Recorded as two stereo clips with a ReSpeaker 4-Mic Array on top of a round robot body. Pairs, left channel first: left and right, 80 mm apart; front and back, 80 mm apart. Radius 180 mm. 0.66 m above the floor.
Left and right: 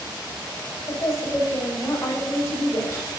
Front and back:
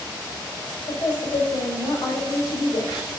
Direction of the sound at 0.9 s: 35° left.